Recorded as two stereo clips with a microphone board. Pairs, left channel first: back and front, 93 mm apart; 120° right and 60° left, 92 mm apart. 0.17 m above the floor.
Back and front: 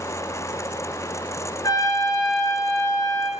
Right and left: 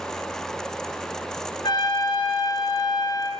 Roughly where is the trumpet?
Behind right.